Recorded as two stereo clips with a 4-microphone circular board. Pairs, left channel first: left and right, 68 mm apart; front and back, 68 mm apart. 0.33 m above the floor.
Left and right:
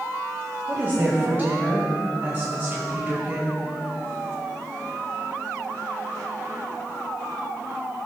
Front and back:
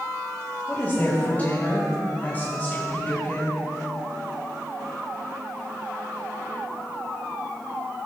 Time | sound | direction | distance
0.7 | a woman speaking | 45° right | 1.5 m